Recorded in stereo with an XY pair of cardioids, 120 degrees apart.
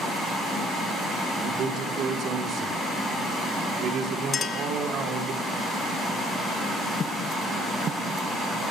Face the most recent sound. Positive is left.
turn(degrees=40)